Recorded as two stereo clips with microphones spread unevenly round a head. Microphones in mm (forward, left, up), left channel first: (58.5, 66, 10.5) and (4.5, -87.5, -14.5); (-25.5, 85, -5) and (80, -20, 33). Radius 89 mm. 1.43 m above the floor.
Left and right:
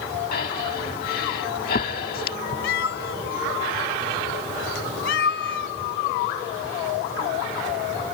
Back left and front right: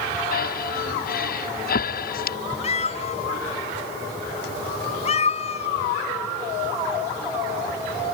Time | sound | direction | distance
0.3 | breathing | 115° left | ?
2.6 | a cat meowing | 85° left | ?